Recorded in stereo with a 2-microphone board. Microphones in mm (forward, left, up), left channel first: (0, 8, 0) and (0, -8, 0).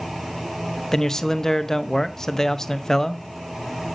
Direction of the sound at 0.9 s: 30° left (ahead or behind).